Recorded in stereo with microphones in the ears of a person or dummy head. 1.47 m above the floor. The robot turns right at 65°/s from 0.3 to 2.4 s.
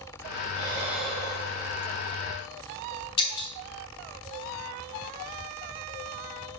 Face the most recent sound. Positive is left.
turn(degrees=30)  # may be behind; listen again after turning